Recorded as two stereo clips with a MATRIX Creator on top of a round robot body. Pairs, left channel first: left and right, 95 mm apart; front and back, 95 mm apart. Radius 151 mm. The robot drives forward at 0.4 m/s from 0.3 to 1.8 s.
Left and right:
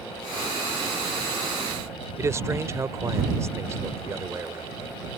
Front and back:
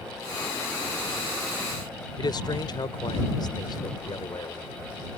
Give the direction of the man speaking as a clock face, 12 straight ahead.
1 o'clock.